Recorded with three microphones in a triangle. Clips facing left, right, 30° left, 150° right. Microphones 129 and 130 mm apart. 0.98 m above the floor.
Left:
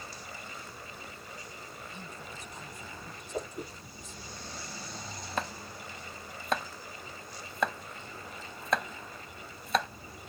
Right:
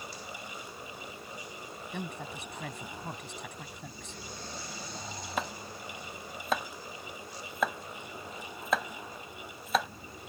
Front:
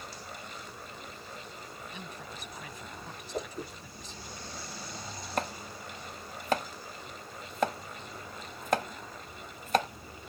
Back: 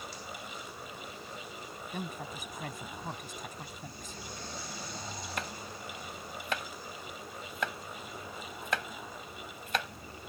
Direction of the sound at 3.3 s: 55° left.